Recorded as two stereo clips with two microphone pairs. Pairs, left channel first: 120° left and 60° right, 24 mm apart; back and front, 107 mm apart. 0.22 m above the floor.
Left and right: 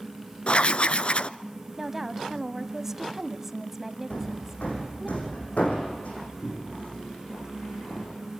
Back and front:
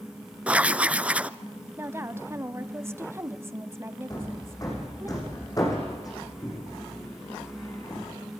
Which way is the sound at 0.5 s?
80° left.